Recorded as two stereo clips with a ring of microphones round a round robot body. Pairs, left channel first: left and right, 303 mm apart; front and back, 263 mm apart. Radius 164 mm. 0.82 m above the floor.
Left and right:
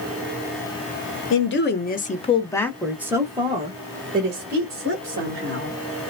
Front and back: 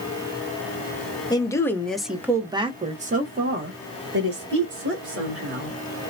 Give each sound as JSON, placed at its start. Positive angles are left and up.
{"t": 1.3, "sound": "a woman speaking", "azimuth_deg": 70, "distance_m": 1.2}